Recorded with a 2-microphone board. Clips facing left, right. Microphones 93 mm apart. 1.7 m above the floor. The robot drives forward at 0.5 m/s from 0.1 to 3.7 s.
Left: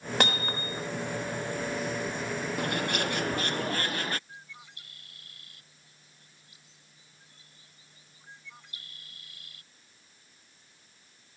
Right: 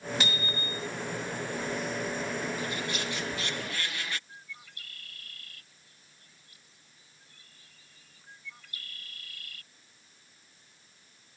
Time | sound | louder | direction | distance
0.2 | hammering | left 5 dB | 55° left (ahead or behind) | ?
2.6 | a bird | left 4 dB | 65° left (ahead or behind) | ?
4.3 | a bird | even | 20° left (ahead or behind) | ?